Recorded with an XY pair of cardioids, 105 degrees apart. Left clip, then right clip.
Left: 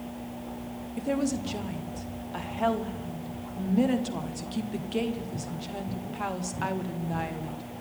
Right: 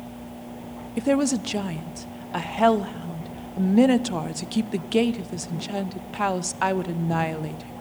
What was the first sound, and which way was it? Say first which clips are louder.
A woman speaking: right 7 dB; 55° right.